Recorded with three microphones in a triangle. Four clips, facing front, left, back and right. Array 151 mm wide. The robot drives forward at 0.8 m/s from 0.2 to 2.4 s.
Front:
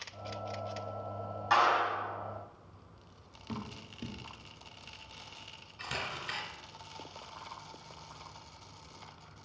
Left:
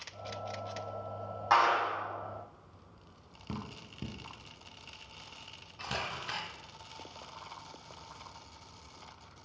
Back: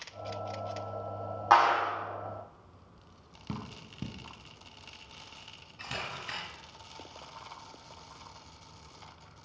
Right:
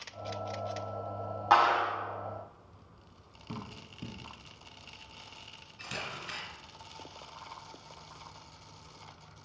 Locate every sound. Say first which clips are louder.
1.5 s a clap: right 2 dB, back 4 dB; 155° right, 1.2 m; by 1.9 s 160° right, 1.4 m
3.5 s dripping: left 1 dB, even; 145° left, 0.9 m
5.8 s a camera shutter: left 3 dB, even; 95° left, 0.7 m